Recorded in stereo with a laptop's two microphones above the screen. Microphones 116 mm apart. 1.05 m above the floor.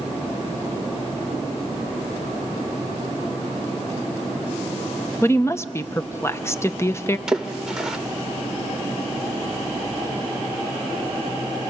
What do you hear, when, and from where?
5.2 s a woman speaking: 20° left (ahead or behind), 0.6 m
7.3 s a splash: 5° right (ahead or behind), 1.3 m